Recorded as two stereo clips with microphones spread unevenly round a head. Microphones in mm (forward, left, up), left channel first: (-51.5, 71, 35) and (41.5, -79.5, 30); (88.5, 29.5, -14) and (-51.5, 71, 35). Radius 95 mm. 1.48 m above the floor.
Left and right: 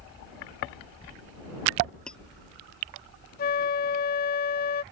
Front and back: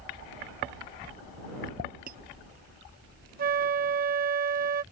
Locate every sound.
2.1 s cutlery clinking: 150° right
3.4 s a flute: 160° left